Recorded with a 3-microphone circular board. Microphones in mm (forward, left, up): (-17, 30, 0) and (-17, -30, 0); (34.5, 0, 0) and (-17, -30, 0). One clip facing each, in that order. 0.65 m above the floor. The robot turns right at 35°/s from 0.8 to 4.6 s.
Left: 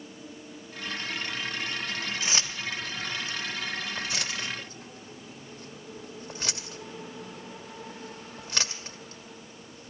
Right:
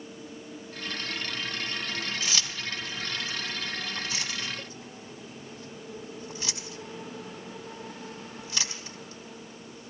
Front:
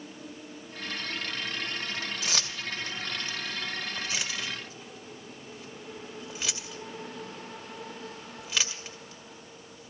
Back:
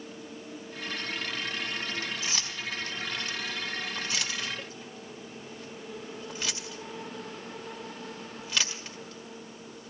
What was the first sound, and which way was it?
Keys jangling, 25° left.